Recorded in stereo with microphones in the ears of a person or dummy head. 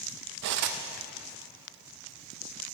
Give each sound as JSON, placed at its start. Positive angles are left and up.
{"t": 0.4, "sound": "cutlery clinking", "side_deg": -60, "distance_m": 0.7}